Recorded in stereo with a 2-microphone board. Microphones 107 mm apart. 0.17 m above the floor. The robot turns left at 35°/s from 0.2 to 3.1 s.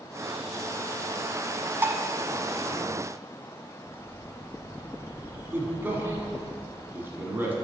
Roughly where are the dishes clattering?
Right.